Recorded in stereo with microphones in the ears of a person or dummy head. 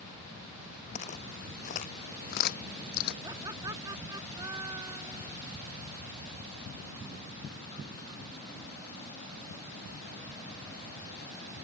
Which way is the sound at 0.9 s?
40° left (ahead or behind).